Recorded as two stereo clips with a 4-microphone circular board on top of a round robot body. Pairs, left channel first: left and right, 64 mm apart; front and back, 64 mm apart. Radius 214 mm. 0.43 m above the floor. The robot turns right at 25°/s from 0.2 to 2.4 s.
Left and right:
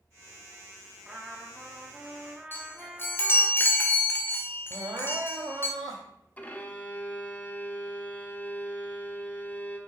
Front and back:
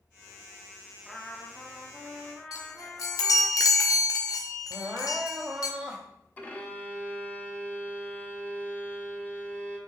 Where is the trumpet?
80° right, 1.4 m; by 3.5 s 45° right, 1.4 m.